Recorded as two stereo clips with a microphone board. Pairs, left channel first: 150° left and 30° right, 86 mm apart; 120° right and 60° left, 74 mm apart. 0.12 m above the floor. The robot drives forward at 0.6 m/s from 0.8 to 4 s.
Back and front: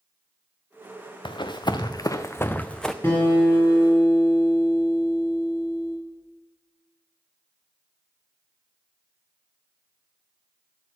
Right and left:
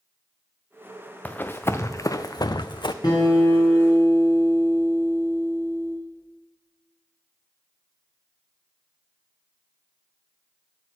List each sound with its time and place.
1.2 s running footsteps: 170° left, 0.7 m; by 2.9 s 125° right, 0.5 m
3.0 s a guitar: 155° right, 3.5 m